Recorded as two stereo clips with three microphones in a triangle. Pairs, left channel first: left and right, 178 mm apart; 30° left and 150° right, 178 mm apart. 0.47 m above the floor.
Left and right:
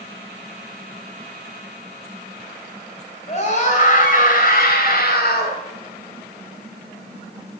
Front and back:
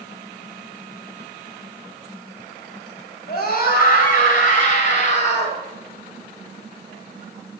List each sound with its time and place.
3.3 s a scream: 45° left, 3 m; by 5.6 s 75° left, 3.5 m